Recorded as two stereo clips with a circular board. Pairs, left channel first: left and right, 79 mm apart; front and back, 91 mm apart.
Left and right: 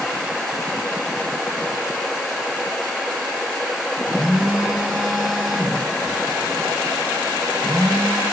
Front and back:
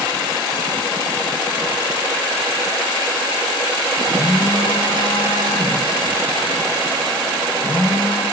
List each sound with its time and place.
4.1 s a phone buzzing: 15° right, 4 m